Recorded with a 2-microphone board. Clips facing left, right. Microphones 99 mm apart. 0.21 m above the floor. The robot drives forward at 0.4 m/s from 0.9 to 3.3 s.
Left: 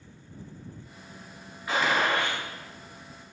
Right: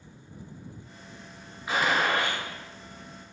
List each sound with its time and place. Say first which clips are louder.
1.7 s a gunshot: even; 10° right (ahead or behind), 1.3 m